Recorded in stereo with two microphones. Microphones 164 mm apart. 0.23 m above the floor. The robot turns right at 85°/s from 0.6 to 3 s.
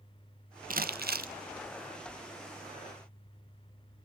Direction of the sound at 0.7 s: 115° right.